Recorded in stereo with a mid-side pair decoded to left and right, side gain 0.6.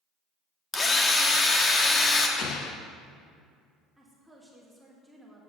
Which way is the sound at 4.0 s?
5° right.